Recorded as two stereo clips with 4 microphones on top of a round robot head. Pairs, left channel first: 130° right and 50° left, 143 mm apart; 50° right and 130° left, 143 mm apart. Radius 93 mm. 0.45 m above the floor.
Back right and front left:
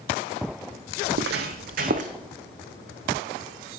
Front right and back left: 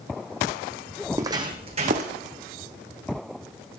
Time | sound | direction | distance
1.0 | footsteps | 55° left | 1.1 m